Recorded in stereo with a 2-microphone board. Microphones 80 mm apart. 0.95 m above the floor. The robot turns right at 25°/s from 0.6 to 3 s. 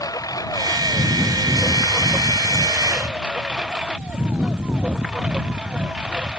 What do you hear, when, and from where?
0.0 s a lawn mower: 130° left; by 6.4 s 170° right